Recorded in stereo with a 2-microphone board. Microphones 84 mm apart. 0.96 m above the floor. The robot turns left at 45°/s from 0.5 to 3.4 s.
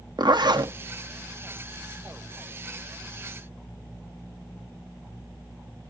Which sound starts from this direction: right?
A zipper, at 0.2 s.